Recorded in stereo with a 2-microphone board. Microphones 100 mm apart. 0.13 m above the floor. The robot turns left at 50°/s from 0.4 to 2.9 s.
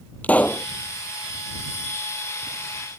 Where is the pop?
15° left (ahead or behind); by 0.7 s 25° left (ahead or behind).